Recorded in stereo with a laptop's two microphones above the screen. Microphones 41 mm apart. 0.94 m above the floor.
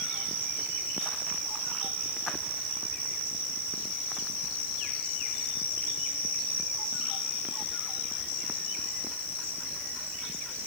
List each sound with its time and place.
Only background noise.